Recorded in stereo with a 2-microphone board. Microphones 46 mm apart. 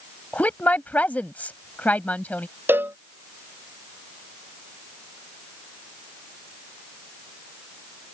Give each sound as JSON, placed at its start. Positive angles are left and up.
{"t": 0.3, "sound": "a woman speaking", "side_deg": 40}
{"t": 2.7, "sound": "a cowbell", "side_deg": -50}